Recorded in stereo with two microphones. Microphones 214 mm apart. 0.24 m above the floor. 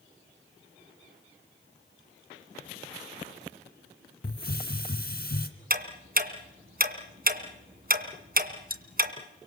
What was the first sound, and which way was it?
A hiss, 45° left (ahead or behind).